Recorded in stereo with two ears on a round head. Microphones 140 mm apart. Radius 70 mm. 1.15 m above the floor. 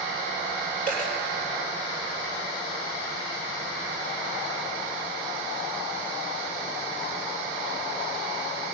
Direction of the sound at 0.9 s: 55° left (ahead or behind).